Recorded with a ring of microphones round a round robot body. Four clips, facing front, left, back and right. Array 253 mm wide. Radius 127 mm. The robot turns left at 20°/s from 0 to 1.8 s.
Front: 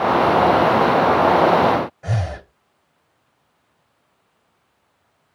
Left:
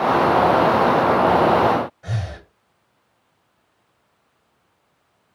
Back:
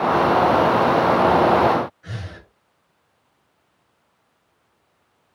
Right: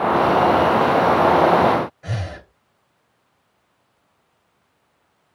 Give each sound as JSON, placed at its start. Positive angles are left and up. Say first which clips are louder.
{"t": 2.0, "sound": "breathing", "louder": "right 1 dB, front 10 dB", "azimuth_deg": -15, "distance_m": 1.9}